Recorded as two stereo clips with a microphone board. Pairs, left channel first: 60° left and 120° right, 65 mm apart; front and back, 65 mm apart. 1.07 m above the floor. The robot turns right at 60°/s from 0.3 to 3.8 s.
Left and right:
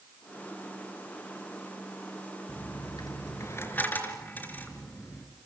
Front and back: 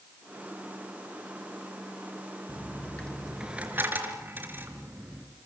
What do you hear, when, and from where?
2.5 s a dropped coin: 45° left, 3.5 m; by 5.3 s 125° left, 3.5 m